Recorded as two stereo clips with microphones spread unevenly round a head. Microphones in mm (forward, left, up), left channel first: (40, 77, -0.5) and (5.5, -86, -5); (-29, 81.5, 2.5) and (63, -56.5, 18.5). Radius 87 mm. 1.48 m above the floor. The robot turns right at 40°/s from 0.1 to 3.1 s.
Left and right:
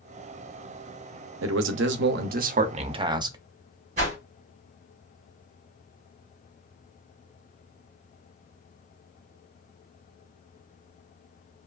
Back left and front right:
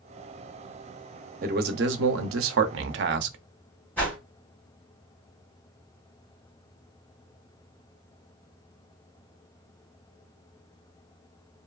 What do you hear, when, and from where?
1.4 s a man speaking: 105° right, 0.5 m; by 3.4 s 35° right, 0.5 m
4.0 s a whoosh: 150° right, 1.0 m